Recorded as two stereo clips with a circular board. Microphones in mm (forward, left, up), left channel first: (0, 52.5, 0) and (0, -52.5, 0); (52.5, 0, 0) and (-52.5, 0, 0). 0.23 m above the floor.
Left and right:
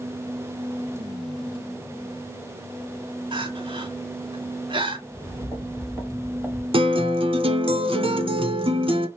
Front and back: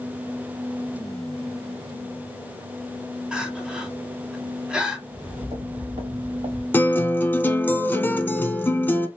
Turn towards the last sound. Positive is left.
turn(degrees=-70)